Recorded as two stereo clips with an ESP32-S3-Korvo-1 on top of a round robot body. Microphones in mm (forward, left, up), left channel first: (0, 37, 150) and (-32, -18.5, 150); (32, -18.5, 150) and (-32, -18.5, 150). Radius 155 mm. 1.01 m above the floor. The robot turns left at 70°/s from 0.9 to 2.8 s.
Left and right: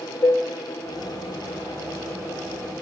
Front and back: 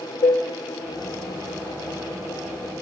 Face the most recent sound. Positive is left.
turn(degrees=-125)